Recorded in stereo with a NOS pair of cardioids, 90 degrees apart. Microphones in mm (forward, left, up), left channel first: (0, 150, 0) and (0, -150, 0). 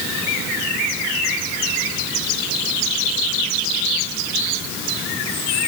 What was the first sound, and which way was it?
Only background noise.